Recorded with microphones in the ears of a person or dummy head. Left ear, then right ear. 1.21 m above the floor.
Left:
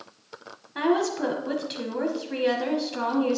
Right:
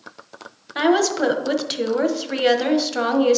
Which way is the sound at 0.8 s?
25° right (ahead or behind).